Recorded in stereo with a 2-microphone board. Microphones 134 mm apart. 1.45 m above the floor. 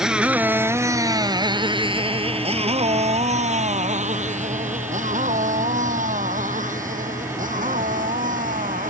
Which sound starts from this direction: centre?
A motorcycle, at 0.0 s.